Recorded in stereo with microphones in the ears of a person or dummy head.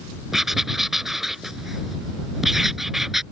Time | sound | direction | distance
0.3 | writing | 5° right (ahead or behind) | ?